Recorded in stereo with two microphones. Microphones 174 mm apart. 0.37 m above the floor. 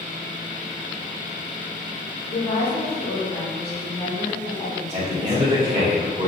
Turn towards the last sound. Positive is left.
turn(degrees=-35)  # may be behind; listen again after turning